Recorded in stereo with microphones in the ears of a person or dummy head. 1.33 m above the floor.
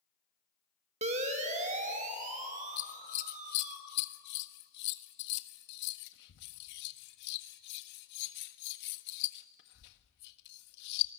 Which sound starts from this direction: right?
A siren, at 1.0 s.